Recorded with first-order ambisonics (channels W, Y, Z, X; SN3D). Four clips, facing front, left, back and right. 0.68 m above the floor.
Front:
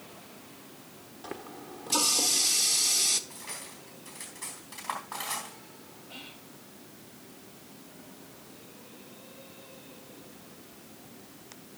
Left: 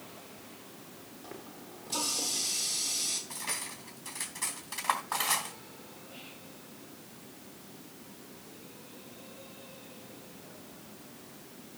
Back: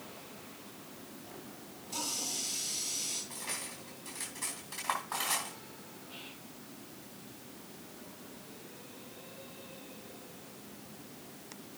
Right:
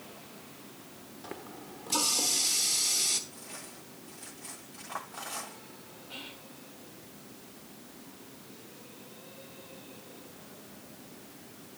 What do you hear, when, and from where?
1.2 s a running tap: 25° right, 1.1 m
3.3 s cutlery clinking: 100° left, 3.5 m
6.1 s whispering: 75° right, 2.5 m